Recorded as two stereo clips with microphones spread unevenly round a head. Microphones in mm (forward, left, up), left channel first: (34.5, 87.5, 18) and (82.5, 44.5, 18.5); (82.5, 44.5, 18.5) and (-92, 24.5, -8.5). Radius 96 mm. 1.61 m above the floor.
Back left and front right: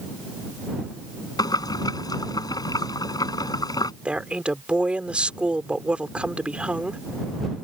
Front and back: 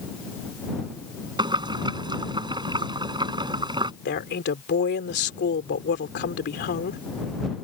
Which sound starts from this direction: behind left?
Boiling, at 1.4 s.